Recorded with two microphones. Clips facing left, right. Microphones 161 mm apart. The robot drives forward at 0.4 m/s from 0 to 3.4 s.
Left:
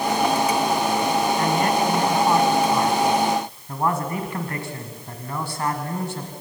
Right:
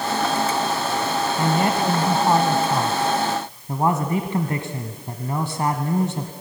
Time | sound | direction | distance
1.4 | a man speaking | 25° right (ahead or behind) | 1.2 m